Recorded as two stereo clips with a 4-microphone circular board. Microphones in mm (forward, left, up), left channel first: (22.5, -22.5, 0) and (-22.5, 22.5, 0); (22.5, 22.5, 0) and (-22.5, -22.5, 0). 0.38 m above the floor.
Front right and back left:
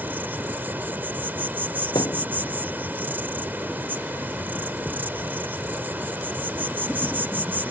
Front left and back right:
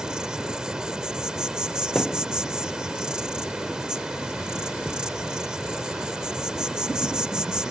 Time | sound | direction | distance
0.0 | an insect | 155° left | ?
1.9 | a thud | 45° right | ?